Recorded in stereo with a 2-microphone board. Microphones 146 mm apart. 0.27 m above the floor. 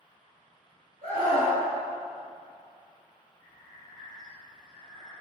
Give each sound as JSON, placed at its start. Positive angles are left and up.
{"t": 1.0, "sound": "a scream", "side_deg": -60, "distance_m": 1.8}
{"t": 3.4, "sound": "breathing", "side_deg": 55, "distance_m": 1.2}